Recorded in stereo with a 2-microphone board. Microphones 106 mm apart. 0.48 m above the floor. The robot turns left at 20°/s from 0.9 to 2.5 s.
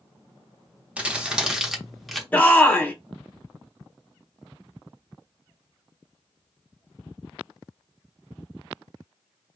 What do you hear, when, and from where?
1.0 s crumpling: 10° right (ahead or behind), 0.7 m; by 2.2 s centre (ahead or behind), 0.7 m
2.3 s a shout: 15° left (ahead or behind), 0.8 m